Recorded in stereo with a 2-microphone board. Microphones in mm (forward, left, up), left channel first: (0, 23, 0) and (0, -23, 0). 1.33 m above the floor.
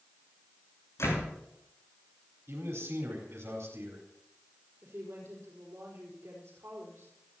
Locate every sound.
1.0 s a door slam: 85° left, 10 m
2.5 s a man speaking: 80° right, 4.5 m
4.8 s a woman speaking: 70° right (ahead or behind), 4.5 m